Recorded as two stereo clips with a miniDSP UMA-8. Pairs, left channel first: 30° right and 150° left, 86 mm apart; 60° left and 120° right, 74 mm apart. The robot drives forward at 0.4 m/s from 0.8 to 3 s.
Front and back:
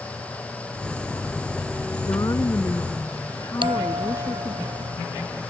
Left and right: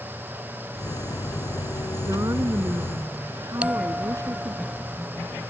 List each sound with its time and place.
2.0 s a woman speaking: 75° right; by 4.6 s 80° right
3.6 s a bell: 170° left